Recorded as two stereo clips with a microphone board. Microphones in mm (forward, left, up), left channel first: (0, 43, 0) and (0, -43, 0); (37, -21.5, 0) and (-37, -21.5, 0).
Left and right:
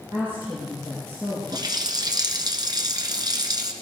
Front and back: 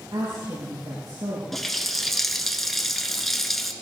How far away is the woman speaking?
About 7 m.